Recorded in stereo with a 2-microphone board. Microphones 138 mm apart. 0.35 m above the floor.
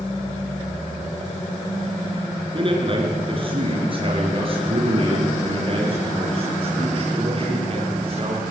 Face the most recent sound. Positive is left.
turn(degrees=-40)  # may be behind; listen again after turning